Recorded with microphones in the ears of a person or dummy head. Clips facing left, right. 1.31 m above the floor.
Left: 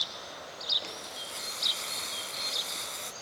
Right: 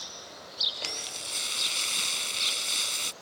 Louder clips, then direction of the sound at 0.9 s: Even; 40° right (ahead or behind).